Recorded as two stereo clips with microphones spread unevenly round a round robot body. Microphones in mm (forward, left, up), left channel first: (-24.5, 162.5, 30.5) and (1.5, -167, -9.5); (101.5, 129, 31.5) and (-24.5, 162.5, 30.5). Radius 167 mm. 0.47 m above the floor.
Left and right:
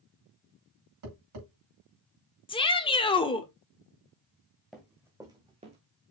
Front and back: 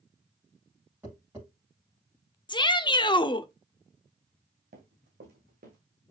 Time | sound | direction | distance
1.0 | tapping | 115° right | 5 m
2.5 | a shout | 20° left | 1.1 m
4.7 | running footsteps | 175° right | 2 m